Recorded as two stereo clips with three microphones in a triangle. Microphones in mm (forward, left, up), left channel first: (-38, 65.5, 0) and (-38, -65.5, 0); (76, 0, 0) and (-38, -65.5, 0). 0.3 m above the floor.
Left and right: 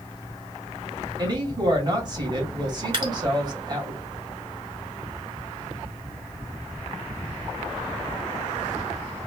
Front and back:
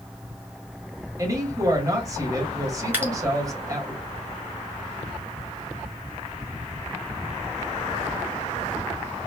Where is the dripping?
85° right, 1.4 m.